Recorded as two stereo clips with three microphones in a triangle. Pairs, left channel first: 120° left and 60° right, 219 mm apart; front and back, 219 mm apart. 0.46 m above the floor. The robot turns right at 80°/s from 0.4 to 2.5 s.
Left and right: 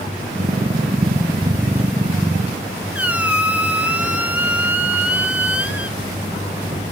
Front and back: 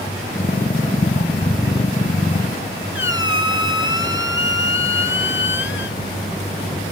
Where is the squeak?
25° left, 0.6 m.